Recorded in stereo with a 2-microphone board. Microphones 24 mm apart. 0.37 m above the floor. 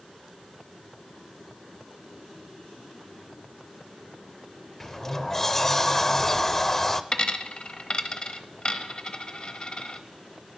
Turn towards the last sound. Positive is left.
turn(degrees=35)  # may be behind; listen again after turning